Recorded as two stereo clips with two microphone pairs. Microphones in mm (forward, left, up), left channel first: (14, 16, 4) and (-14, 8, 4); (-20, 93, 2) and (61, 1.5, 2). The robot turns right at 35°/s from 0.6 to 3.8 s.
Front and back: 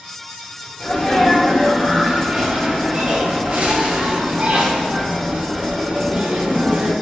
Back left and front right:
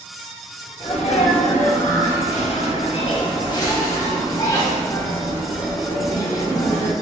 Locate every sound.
0.8 s a sneeze: 90° left, 1.3 m; by 6.9 s 165° right, 1.3 m